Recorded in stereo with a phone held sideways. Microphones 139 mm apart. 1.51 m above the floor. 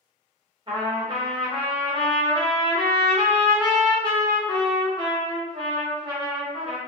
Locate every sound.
0.7 s a trumpet: 35° right (ahead or behind), 1.1 m